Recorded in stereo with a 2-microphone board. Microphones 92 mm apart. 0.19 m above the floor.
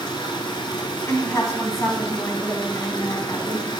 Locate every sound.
0.0 s running water: 60° left (ahead or behind), 1.1 m
1.1 s a woman speaking: 30° left (ahead or behind), 1.7 m